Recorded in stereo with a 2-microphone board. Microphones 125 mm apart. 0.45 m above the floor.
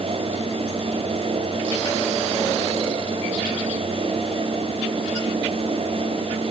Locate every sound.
Only background noise.